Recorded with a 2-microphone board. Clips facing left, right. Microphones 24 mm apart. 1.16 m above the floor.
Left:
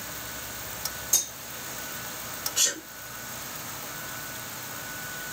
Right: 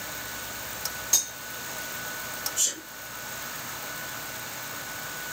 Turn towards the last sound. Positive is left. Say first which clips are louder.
# left 4 dB
turn(degrees=75)  # may be behind; listen again after turning